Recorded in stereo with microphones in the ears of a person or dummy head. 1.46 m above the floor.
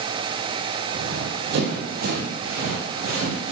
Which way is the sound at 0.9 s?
60° right (ahead or behind).